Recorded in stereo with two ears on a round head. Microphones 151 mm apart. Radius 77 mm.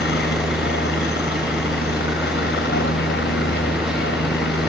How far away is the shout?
No shout in this recording.